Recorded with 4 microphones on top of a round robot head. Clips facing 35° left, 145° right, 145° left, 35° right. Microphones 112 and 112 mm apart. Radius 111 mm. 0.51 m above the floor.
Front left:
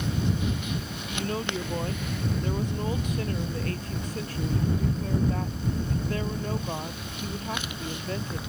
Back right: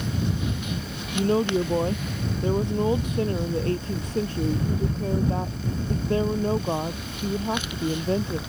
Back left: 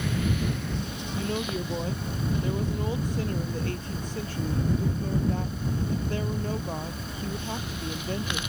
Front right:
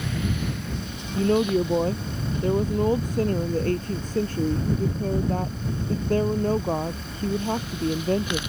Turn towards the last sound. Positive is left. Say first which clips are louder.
# back right 9 dB, front right 10 dB
turn(degrees=-80)